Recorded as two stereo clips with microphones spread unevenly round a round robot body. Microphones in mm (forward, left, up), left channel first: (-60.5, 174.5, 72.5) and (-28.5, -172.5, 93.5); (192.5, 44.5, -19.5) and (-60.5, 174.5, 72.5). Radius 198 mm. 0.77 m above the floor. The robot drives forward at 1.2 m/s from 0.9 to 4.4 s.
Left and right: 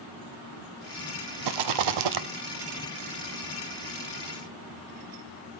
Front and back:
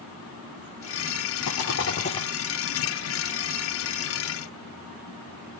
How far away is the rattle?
About 1.4 m.